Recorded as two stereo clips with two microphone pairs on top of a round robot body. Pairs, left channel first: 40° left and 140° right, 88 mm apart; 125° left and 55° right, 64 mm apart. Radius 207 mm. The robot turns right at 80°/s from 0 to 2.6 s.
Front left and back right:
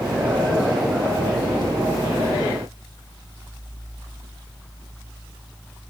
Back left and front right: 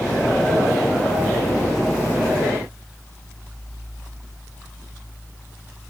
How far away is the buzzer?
No buzzer in this recording.